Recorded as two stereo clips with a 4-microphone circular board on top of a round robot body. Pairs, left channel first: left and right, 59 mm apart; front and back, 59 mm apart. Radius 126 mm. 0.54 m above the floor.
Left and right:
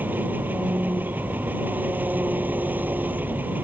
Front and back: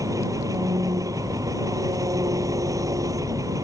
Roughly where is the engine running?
Behind right.